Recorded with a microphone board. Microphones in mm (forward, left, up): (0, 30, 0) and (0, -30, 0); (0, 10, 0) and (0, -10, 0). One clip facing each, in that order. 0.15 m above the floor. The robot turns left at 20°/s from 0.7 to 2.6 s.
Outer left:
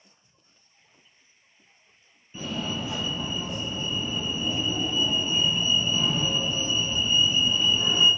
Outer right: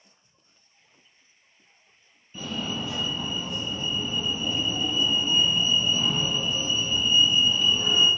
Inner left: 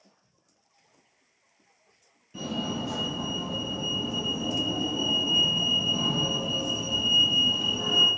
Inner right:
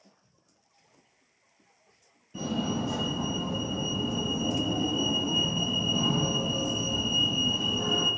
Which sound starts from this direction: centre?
A fire alarm, at 2.3 s.